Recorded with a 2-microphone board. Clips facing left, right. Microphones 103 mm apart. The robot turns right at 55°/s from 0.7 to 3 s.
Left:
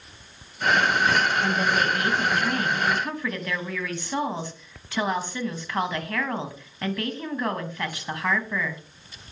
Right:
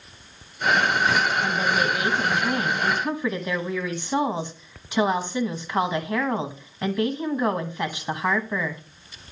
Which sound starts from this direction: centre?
A woman speaking, at 1.4 s.